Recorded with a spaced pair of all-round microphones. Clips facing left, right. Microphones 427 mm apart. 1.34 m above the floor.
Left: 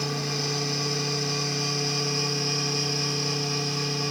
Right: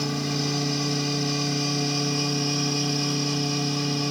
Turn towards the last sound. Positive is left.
turn(degrees=-50)  # may be behind; listen again after turning